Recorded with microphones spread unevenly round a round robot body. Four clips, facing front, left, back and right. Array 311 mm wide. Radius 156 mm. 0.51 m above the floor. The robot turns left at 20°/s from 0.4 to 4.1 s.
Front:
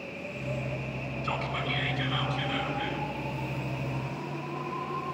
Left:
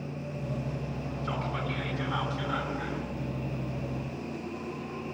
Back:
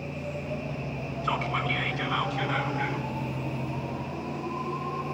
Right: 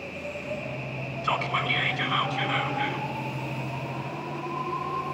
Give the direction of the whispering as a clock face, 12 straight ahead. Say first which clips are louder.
Right 7 dB, back 4 dB; 3 o'clock.